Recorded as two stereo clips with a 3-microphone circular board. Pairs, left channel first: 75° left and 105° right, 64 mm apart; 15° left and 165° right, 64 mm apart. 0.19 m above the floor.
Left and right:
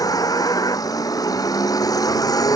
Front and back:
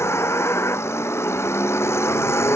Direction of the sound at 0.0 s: 60° left.